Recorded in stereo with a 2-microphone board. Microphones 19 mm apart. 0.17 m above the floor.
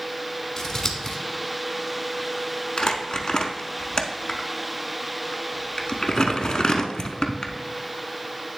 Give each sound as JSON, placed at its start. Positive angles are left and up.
{"t": 0.6, "sound": "scissors", "side_deg": 30, "distance_m": 1.0}
{"t": 2.8, "sound": "crumpling", "side_deg": 45, "distance_m": 0.6}